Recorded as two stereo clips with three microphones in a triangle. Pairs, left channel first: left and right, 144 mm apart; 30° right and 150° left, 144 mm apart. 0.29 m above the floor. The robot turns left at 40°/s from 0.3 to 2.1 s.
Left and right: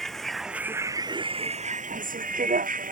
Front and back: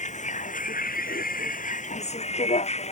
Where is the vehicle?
Straight ahead; by 2.9 s 70° right.